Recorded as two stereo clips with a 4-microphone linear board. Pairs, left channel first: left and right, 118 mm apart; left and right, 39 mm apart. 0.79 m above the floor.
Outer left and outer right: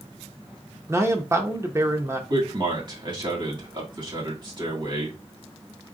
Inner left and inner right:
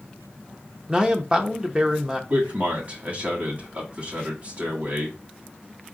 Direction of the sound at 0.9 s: 25° right (ahead or behind).